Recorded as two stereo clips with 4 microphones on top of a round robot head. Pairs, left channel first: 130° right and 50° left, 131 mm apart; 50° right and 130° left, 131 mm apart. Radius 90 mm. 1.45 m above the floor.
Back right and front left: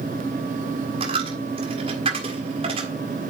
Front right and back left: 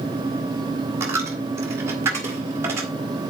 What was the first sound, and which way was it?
A dropped coin, 70° left.